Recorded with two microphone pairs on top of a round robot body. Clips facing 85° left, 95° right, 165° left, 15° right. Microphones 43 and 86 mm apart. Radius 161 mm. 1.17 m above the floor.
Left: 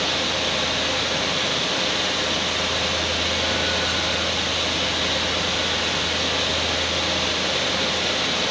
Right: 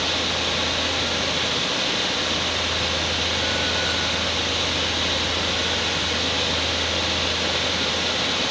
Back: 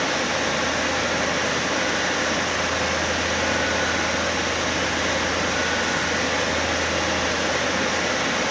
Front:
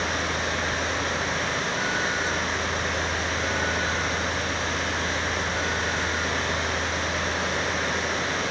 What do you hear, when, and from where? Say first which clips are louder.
0.0 s running water: left 1 dB, back 4 dB; 175° left, 2 m